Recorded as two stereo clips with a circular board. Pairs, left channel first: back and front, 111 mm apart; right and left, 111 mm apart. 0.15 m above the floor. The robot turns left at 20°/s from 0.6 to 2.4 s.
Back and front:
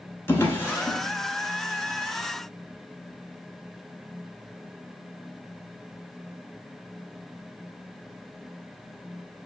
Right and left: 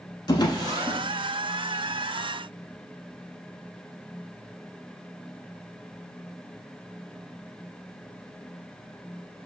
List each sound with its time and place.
0.3 s a drawer: 120° right, 0.7 m; by 1.0 s 125° right, 0.7 m